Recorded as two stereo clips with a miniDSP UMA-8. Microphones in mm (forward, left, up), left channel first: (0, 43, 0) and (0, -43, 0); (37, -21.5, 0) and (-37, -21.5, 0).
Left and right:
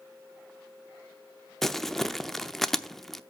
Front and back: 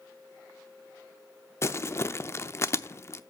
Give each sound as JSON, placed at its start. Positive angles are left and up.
{"t": 1.6, "sound": "crumpling", "azimuth_deg": 5, "distance_m": 0.6}